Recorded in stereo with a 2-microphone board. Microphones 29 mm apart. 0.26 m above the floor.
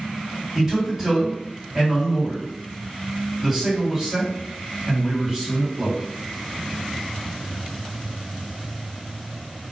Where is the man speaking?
20° right (ahead or behind), 1.8 m.